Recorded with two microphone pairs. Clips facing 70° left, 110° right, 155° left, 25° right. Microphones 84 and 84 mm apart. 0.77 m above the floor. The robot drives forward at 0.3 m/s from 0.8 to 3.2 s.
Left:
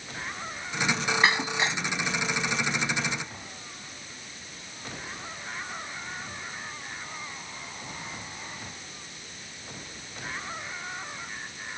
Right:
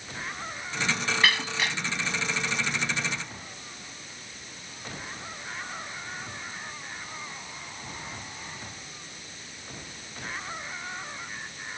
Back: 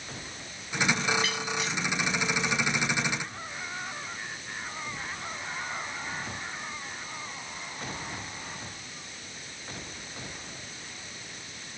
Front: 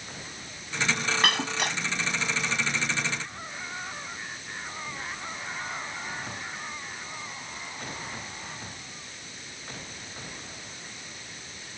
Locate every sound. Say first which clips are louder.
1.2 s breaking glass: left 2 dB, front 4 dB; straight ahead